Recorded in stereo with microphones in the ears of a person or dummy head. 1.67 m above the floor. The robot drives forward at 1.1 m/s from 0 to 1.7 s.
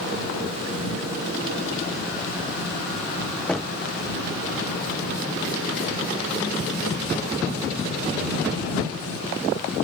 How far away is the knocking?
About 0.8 m.